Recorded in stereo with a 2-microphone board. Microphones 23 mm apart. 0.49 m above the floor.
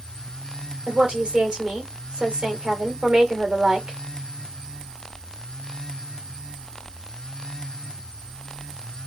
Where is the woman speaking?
50° right (ahead or behind), 1.5 m.